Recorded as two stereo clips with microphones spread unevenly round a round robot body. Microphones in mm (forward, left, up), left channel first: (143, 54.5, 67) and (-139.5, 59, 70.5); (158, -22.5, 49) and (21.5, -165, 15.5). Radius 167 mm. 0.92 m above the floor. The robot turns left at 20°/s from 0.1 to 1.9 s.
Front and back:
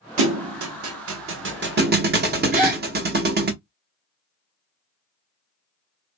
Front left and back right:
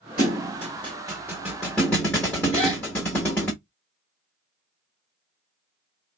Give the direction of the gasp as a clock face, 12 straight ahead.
8 o'clock.